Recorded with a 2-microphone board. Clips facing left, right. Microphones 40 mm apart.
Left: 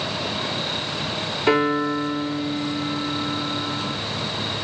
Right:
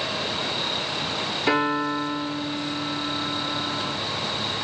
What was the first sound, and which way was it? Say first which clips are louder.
A piano: left 3 dB; 15° left (ahead or behind).